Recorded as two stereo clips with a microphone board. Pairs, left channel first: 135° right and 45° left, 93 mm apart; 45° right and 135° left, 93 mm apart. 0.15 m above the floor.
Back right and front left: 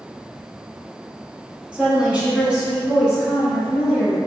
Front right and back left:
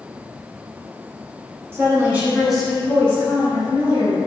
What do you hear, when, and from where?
1.7 s a woman speaking: 110° left, 1.2 m; by 4.2 s 35° right, 1.5 m